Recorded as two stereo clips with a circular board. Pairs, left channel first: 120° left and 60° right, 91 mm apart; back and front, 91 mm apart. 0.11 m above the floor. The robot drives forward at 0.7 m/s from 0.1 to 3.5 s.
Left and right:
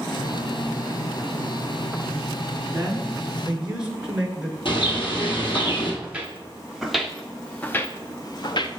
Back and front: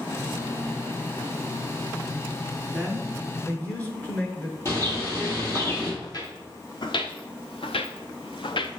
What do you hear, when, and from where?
2.7 s a man speaking: 65° right, 1.1 m; by 4.5 s 130° right, 1.2 m
4.7 s a bird: 125° left, 1.9 m
6.0 s footsteps: 135° right, 1.4 m; by 8.7 s 150° left, 0.7 m